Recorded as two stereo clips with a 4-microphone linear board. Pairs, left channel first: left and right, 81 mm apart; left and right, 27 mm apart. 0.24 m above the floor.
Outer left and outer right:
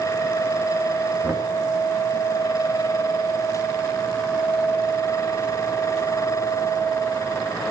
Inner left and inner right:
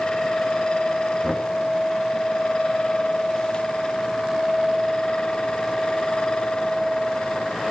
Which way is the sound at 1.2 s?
30° right (ahead or behind).